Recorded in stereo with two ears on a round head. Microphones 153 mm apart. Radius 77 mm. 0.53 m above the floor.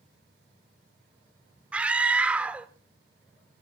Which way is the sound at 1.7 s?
5° right (ahead or behind).